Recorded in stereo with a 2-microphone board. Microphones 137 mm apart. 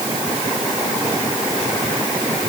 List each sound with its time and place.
Only background noise.